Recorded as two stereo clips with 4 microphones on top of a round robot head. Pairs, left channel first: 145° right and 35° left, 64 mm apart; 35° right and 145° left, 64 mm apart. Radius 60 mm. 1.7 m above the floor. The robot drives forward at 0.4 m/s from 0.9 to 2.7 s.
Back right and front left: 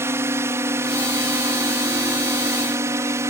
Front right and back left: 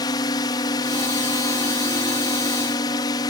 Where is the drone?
15° right.